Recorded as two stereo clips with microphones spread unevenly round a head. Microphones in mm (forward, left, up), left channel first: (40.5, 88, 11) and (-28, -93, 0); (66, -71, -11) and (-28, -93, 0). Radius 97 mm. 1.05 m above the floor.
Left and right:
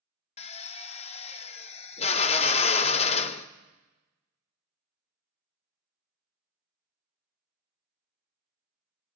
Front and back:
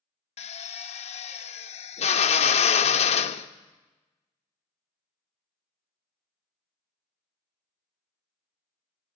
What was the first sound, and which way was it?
A drill, 10° left.